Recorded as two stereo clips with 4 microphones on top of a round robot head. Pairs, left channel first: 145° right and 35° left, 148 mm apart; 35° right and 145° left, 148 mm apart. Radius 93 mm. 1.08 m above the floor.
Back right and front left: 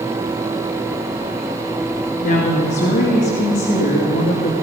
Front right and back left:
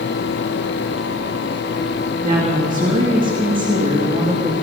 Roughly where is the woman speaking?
Behind.